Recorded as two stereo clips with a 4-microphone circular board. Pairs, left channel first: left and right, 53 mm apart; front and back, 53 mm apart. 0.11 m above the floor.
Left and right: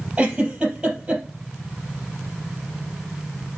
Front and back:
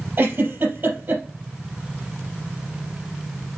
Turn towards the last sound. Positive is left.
turn(degrees=-160)